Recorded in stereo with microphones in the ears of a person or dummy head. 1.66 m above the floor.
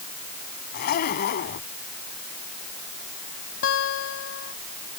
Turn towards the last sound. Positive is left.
turn(degrees=75)  # may be behind; listen again after turning